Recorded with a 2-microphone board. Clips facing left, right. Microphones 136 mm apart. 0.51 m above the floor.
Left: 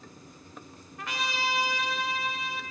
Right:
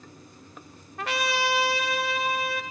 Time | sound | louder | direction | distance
1.0 | a trumpet | right 6 dB | 75° right (ahead or behind) | 0.7 m